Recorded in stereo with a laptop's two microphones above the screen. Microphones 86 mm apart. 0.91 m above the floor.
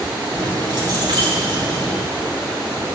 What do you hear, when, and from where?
0.3 s keys jangling: 55° right (ahead or behind), 3.5 m